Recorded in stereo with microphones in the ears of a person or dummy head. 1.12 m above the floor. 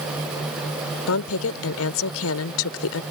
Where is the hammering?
I don't hear hammering.